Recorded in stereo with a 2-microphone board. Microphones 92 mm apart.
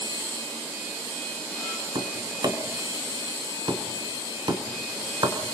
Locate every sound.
1.9 s tapping: 55° right (ahead or behind), 3 m